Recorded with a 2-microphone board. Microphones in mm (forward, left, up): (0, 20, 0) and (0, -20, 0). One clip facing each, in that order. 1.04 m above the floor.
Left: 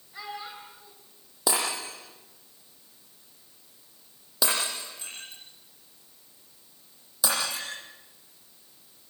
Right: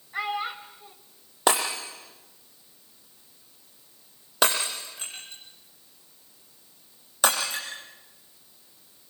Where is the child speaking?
60° right (ahead or behind), 2.5 m.